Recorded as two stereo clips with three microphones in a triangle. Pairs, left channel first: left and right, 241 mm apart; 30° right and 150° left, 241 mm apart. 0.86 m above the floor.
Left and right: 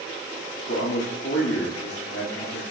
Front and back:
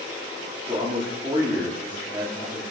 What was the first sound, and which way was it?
A man speaking, 80° left.